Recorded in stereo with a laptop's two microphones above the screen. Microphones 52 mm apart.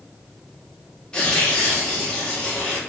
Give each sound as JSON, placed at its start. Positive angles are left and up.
{"t": 1.1, "sound": "tearing paper", "side_deg": 15, "distance_m": 0.7}